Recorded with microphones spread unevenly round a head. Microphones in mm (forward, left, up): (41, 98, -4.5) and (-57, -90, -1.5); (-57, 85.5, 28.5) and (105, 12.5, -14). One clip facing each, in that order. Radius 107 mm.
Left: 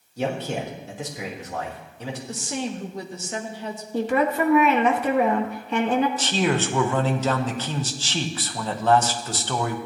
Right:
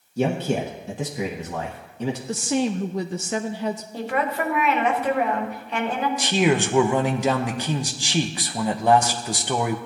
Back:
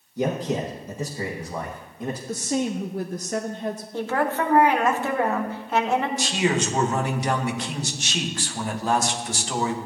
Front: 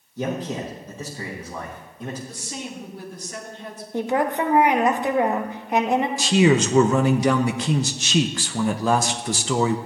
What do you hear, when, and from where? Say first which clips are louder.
0.2 s a man speaking: right 4 dB, back 2 dB; 120° right, 1.5 m
2.3 s a woman speaking: right 7 dB, back 10 dB; 145° right, 0.6 m
3.9 s a woman speaking: left 7 dB, front 3 dB; 50° left, 1.5 m
6.2 s a man speaking: right 3 dB, front 6 dB; 40° right, 0.9 m